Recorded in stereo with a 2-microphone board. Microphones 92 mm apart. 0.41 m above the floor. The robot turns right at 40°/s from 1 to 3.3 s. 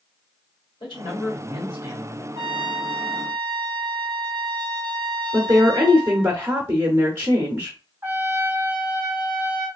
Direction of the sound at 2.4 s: 100° right.